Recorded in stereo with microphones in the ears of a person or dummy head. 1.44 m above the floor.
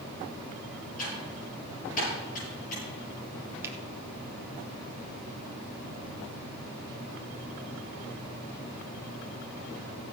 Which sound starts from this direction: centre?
A finger snap, at 3.6 s.